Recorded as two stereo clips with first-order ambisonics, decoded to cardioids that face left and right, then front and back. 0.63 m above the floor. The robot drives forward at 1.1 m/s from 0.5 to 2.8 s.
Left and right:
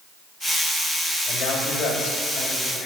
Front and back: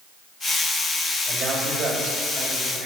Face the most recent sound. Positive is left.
turn(degrees=135)